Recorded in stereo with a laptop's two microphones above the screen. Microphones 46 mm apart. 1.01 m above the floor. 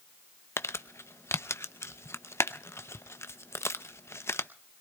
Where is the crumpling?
75° left (ahead or behind), 0.6 m.